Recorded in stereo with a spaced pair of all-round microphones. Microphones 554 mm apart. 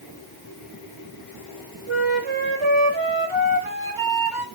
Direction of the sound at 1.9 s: 55° right (ahead or behind).